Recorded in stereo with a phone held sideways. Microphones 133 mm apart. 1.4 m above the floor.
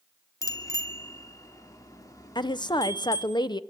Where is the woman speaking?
30° left (ahead or behind), 1.0 m.